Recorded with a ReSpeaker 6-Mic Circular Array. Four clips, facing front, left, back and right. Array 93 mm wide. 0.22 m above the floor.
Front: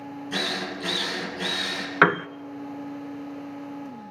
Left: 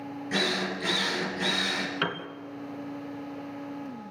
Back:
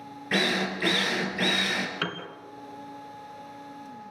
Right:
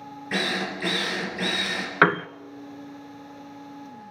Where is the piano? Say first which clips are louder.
Right 16 dB, front 14 dB; 40° right, 0.7 m.